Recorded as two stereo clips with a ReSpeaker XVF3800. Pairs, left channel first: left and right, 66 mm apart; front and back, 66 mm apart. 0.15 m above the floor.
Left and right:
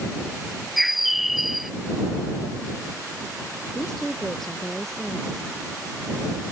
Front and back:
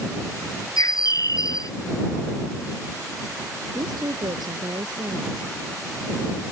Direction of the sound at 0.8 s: Straight ahead.